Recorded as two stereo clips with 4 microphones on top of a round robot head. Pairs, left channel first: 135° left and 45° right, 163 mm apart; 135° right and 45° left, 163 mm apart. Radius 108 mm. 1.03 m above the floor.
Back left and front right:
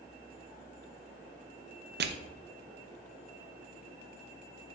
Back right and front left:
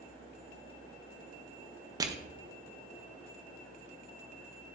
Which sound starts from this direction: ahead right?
Crushing, at 2.0 s.